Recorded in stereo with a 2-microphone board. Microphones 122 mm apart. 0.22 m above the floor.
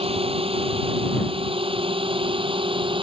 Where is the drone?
50° right (ahead or behind); by 3.0 s 45° right (ahead or behind).